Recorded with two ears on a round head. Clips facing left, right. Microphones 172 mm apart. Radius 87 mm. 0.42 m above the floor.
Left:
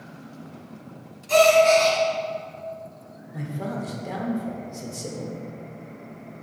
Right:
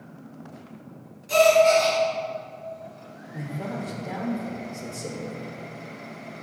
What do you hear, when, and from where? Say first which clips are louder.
1.3 s a gasp: left 1 dB; 15° right (ahead or behind), 1.7 m
3.3 s a man speaking: left 2 dB; centre (ahead or behind), 0.9 m